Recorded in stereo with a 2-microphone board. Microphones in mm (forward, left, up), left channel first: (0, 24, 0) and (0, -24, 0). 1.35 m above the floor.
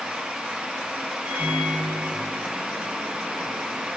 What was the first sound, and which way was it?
A microwave, 50° right (ahead or behind).